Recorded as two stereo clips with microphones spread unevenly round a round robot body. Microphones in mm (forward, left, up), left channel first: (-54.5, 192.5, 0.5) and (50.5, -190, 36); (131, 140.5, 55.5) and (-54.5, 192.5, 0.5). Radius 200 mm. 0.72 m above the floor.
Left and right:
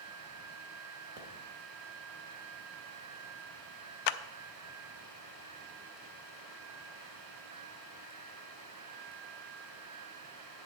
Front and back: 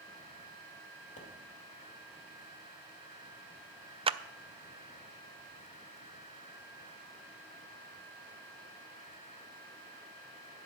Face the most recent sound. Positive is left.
turn(degrees=110)